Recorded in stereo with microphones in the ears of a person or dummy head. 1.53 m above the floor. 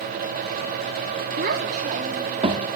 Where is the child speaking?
55° right (ahead or behind), 2.5 m; by 2.7 s 30° right (ahead or behind), 3 m.